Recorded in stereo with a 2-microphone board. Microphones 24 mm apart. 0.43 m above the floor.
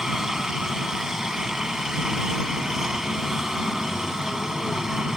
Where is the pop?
No pop in this recording.